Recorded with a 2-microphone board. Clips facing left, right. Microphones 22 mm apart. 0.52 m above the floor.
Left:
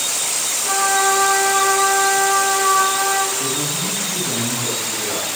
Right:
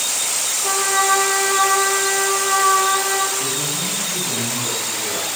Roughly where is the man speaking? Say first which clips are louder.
Left 1 dB; left.